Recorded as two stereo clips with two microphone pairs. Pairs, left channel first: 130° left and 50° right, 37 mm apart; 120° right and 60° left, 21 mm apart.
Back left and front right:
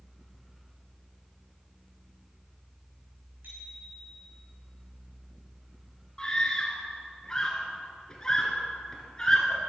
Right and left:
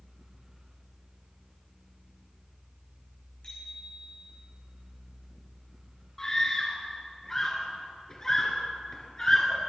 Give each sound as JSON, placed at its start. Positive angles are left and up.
{"t": 3.4, "sound": "a bicycle bell", "azimuth_deg": -70, "distance_m": 6.5}
{"t": 6.2, "sound": "a scream", "azimuth_deg": -170, "distance_m": 1.6}